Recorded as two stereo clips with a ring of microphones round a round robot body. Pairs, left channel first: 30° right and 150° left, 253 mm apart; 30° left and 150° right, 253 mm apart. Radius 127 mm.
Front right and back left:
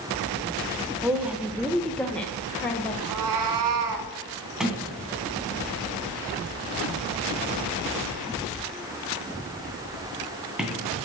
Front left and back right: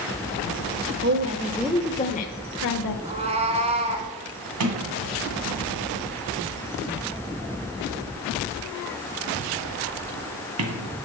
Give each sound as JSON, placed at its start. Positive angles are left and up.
{"t": 1.0, "sound": "a woman speaking", "azimuth_deg": -130, "distance_m": 1.1}
{"t": 3.0, "sound": "a cat meowing", "azimuth_deg": 145, "distance_m": 1.6}
{"t": 4.6, "sound": "a sliding door", "azimuth_deg": -120, "distance_m": 2.0}